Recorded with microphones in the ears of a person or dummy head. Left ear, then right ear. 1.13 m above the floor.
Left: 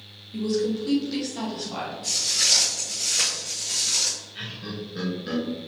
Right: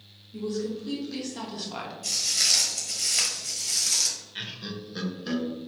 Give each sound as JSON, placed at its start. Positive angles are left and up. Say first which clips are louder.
{"t": 0.3, "sound": "a woman speaking", "louder": "left 6 dB", "side_deg": 35, "distance_m": 1.3}
{"t": 2.0, "sound": "footsteps", "louder": "left 2 dB", "side_deg": -15, "distance_m": 1.5}
{"t": 4.3, "sound": "laughter", "louder": "left 1 dB", "side_deg": -35, "distance_m": 1.2}